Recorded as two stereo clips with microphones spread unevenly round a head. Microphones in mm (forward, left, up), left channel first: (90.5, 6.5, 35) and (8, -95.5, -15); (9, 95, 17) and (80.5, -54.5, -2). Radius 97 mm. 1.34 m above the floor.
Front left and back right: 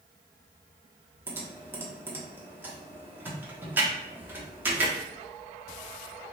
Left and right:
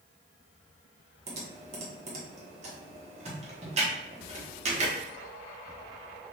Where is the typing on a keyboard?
35° right, 1.0 m.